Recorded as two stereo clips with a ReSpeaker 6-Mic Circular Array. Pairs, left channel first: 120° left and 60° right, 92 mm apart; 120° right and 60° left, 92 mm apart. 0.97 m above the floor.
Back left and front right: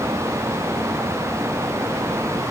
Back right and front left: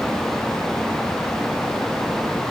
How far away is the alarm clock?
I don't hear an alarm clock.